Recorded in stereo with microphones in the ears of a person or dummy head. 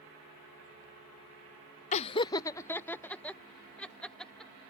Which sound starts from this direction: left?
Laughter, at 1.9 s.